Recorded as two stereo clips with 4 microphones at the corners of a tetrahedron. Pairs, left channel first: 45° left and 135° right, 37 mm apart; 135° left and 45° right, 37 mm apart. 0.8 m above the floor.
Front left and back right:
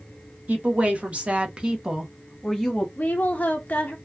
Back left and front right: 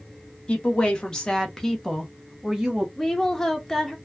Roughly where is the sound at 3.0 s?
Ahead left.